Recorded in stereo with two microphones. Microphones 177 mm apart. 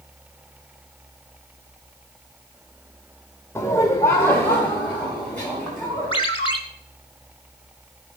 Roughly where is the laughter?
Centre.